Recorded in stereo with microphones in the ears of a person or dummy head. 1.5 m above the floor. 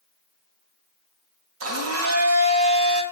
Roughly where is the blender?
Right.